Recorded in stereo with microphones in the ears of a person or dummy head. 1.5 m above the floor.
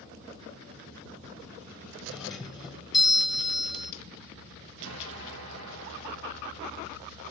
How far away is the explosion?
About 1.6 m.